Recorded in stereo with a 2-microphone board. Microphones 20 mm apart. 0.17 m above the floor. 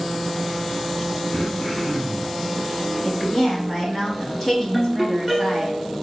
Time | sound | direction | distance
1.3 | throat clearing | 40° left (ahead or behind) | 1.1 m
3.0 | a woman speaking | 25° left (ahead or behind) | 1.2 m
4.7 | a ringtone | 5° left (ahead or behind) | 1.6 m